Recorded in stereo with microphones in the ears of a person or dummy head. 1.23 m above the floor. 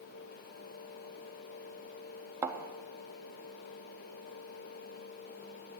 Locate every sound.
2.4 s a thud: 15° right (ahead or behind), 0.8 m